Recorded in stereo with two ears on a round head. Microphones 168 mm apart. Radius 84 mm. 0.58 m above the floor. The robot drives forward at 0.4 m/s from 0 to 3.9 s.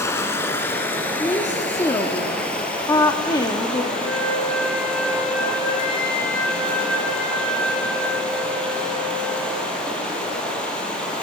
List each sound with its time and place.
0.0 s running water: 15° left (ahead or behind), 0.9 m; by 11.2 s 5° left (ahead or behind), 2.5 m
1.2 s a woman speaking: 15° left (ahead or behind), 1.1 m
3.9 s a flute: 85° left, 7.5 m